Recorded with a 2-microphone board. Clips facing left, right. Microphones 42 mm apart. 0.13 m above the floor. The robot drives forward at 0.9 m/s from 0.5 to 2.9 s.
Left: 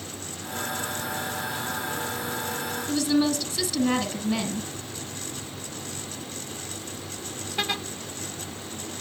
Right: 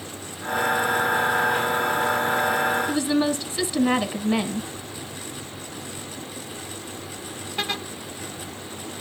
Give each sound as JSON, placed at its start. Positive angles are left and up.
{"t": 2.9, "sound": "a woman speaking", "side_deg": -20, "distance_m": 1.1}